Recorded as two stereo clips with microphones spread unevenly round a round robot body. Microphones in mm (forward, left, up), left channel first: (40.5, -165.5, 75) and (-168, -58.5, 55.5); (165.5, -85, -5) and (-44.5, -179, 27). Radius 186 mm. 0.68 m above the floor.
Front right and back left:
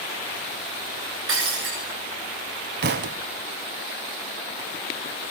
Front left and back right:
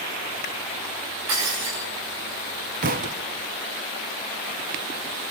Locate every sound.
1.3 s breaking glass: straight behind, 9 m
2.8 s a thud: 175° right, 0.7 m